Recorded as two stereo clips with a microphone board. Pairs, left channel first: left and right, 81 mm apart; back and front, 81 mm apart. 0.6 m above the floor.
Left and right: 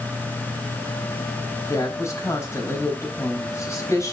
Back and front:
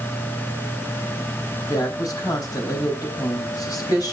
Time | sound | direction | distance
1.7 | a woman speaking | 145° left | 4 m